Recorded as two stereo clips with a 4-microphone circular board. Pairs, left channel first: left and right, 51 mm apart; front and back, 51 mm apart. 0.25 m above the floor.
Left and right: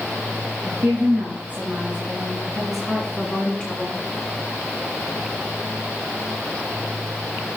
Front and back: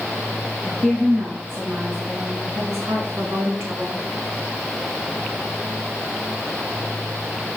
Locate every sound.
0.6 s a woman speaking: 135° right, 3 m; by 4.0 s 150° left, 2.5 m